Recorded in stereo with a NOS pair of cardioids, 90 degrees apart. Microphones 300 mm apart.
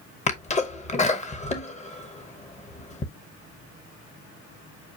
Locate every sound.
0.3 s a sneeze: 25° left, 0.8 m